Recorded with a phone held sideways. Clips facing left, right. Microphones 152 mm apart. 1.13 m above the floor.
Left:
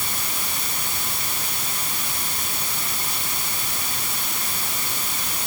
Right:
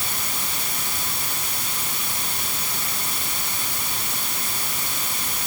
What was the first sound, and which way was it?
Only background noise.